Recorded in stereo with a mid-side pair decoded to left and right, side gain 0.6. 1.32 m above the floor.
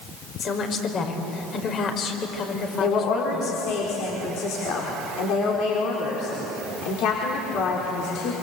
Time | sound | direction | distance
0.4 | a woman speaking | 45° left | 5.5 m
2.8 | a woman speaking | 65° left | 5 m